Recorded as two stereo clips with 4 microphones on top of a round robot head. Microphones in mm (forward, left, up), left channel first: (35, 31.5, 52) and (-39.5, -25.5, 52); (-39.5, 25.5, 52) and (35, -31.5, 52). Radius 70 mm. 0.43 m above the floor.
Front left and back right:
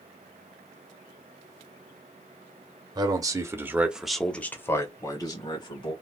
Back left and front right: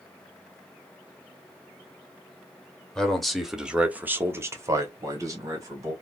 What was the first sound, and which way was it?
A man speaking, 135° right.